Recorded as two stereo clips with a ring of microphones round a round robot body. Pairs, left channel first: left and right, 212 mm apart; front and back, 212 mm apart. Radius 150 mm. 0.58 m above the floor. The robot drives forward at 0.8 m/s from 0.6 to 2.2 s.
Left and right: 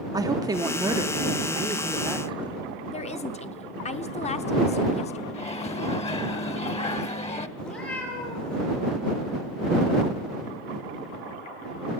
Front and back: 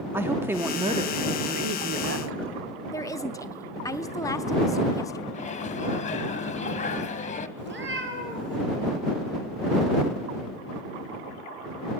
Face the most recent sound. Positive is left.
turn(degrees=150)